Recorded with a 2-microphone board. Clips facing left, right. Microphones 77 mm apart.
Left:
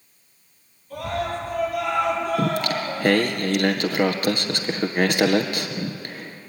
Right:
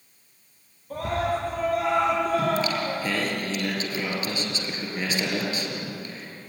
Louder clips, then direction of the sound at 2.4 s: Left 1 dB; 60° left (ahead or behind).